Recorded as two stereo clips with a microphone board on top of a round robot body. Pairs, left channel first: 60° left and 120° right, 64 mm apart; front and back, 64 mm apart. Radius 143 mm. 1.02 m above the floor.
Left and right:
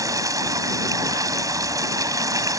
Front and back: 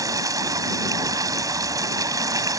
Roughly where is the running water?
Behind right.